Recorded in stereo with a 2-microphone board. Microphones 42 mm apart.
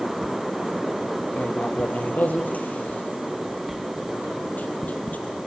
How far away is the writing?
About 3.5 m.